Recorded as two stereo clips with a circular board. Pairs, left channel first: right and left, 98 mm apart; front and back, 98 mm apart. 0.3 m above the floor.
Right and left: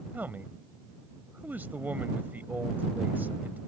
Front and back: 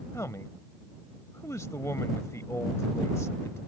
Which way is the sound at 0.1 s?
35° left.